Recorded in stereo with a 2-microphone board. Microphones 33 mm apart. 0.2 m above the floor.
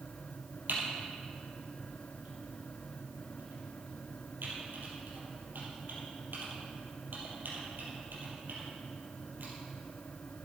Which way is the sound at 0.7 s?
80° right.